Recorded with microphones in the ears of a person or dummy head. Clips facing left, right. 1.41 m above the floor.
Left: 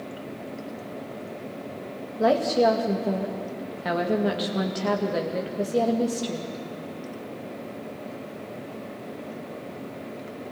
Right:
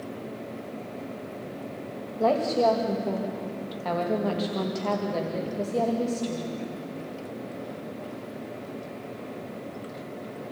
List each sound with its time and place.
2.2 s a woman speaking: 15° left (ahead or behind), 2.5 m